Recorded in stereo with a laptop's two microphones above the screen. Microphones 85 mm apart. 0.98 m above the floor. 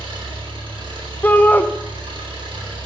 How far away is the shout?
About 0.5 m.